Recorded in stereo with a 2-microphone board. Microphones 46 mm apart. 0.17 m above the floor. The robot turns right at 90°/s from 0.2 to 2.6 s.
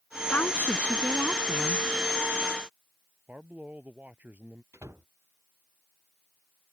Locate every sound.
0.3 s a woman speaking: 65° left; by 1.9 s 160° right
3.3 s a man speaking: 40° right (ahead or behind)
4.7 s a door slam: 85° right